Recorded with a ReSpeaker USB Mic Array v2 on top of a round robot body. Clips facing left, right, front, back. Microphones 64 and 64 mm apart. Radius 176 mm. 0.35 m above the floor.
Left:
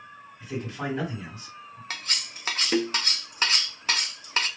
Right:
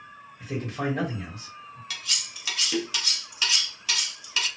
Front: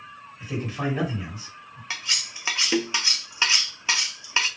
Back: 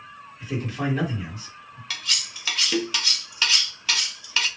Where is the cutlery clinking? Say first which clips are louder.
Left 2 dB, even; 60° left, 0.6 m.